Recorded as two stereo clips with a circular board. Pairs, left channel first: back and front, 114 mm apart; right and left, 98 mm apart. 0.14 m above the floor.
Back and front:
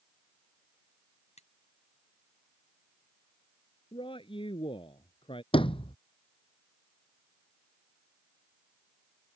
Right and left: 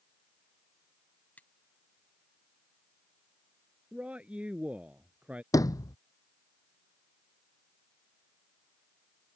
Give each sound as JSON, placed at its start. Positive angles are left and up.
{"t": 1.4, "sound": "cutlery clinking", "azimuth_deg": -165}
{"t": 3.9, "sound": "a man speaking", "azimuth_deg": 165}
{"t": 5.5, "sound": "a sliding door", "azimuth_deg": -145}